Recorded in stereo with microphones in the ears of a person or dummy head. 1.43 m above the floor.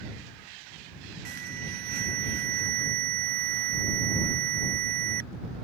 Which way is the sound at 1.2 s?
55° right (ahead or behind).